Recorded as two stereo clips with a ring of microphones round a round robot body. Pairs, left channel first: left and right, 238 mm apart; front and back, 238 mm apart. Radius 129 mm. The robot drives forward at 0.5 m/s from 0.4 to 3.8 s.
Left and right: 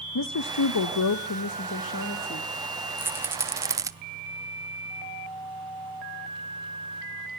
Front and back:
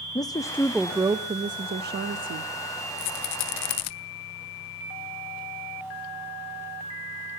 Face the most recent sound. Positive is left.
turn(degrees=-15)